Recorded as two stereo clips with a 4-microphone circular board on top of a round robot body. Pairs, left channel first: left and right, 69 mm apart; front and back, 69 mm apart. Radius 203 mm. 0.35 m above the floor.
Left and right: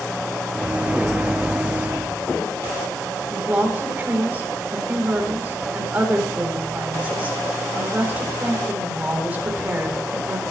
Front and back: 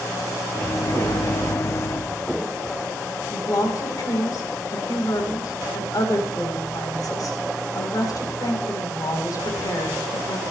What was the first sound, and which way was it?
A microwave, 25° right.